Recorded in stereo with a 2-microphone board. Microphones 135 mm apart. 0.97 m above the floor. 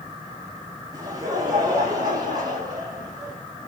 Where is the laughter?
25° right (ahead or behind), 7 m; by 3.3 s 30° right (ahead or behind), 10.5 m.